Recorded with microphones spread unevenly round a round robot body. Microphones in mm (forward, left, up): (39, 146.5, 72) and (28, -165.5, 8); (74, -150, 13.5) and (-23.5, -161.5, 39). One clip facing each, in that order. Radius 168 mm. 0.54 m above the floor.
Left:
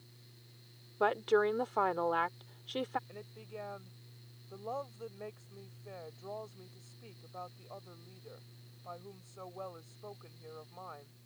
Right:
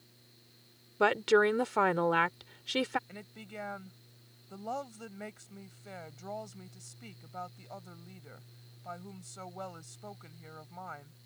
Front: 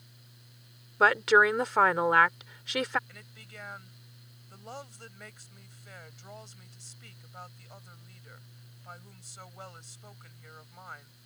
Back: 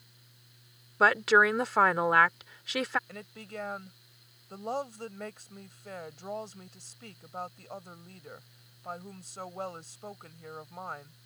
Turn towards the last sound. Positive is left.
turn(degrees=-135)